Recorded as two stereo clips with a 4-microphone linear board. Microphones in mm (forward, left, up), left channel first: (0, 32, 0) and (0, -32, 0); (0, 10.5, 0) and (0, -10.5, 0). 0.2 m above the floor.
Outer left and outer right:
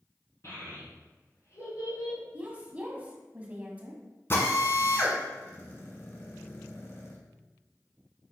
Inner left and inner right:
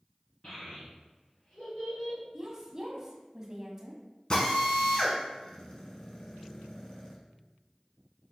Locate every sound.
0.4 s a child speaking: 50° left (ahead or behind), 1.7 m; by 2.2 s 75° left (ahead or behind), 3 m
2.3 s a woman speaking: 25° right (ahead or behind), 1.1 m
4.3 s a drill: 35° left (ahead or behind), 1.0 m